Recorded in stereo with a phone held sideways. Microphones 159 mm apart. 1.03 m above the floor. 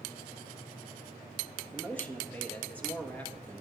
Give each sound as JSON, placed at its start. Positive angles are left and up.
{"t": 1.7, "sound": "a man speaking", "side_deg": 10, "distance_m": 1.9}